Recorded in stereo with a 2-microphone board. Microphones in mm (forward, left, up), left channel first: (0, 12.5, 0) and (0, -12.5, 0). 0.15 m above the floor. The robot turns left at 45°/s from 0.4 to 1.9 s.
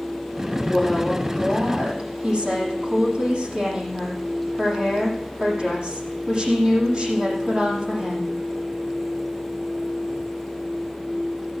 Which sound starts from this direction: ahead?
A woman speaking, at 0.6 s.